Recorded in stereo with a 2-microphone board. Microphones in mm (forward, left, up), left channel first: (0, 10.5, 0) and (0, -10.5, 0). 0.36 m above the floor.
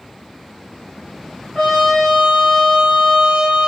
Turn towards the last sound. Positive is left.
turn(degrees=20)  # may be behind; listen again after turning